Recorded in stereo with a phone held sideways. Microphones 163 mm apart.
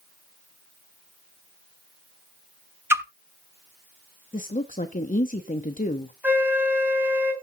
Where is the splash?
15° right (ahead or behind), 1.1 m.